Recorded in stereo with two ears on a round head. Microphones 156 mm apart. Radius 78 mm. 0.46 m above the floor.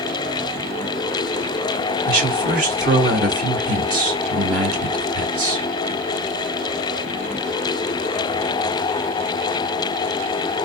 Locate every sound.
2.0 s a man speaking: 50° right (ahead or behind), 1.8 m